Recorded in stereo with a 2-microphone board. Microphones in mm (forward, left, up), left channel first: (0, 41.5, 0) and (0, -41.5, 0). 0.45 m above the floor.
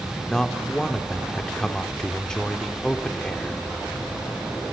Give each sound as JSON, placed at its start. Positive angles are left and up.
{"t": 0.3, "sound": "a man speaking", "side_deg": 10, "distance_m": 1.0}